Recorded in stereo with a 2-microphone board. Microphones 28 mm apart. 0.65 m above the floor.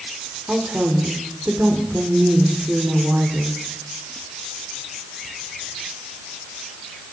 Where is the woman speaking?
60° right (ahead or behind), 2 m.